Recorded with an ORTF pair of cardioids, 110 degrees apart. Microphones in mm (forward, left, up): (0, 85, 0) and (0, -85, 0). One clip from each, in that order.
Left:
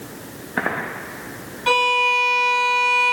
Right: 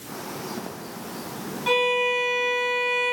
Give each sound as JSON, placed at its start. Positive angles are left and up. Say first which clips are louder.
{"t": 1.7, "sound": "a violin", "louder": "left 5 dB", "azimuth_deg": 45, "distance_m": 0.8}